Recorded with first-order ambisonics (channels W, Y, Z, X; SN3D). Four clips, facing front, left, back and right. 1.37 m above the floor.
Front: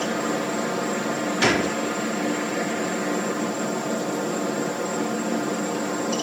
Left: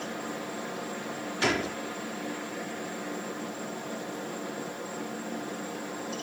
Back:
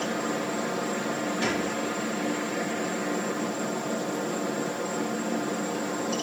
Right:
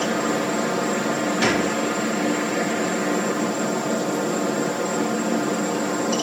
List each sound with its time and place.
0.0 s a helicopter: 70° right
1.4 s a gunshot: 25° right